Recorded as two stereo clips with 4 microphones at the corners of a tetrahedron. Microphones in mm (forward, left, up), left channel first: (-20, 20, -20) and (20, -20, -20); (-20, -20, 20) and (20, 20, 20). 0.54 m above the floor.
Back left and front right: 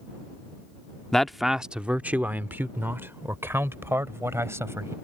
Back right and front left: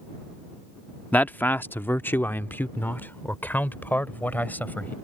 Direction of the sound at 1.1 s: 155° right.